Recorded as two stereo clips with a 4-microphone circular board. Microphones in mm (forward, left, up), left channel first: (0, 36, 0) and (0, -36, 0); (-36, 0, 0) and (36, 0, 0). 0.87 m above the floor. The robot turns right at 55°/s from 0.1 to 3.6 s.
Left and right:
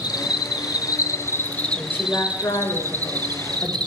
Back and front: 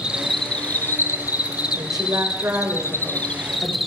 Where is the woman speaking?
20° left, 3.5 m; by 3.8 s 120° left, 3.5 m.